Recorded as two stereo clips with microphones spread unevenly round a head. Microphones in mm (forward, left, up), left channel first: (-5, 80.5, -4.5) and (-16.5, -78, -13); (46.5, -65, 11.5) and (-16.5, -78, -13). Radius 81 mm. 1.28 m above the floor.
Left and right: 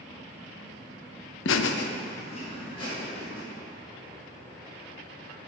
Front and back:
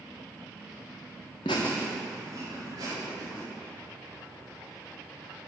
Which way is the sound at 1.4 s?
65° left.